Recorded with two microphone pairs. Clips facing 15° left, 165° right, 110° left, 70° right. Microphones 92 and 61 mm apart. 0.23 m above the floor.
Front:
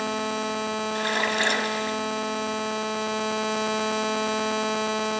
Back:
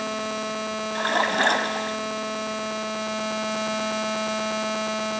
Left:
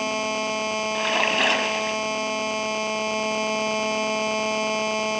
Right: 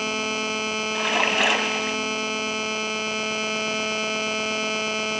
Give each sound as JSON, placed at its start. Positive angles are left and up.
{"t": 0.9, "sound": "a splash", "azimuth_deg": -155, "distance_m": 1.3}